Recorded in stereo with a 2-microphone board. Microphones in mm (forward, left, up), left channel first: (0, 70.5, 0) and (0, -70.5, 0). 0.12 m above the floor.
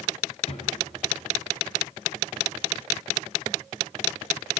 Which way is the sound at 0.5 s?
50° left (ahead or behind).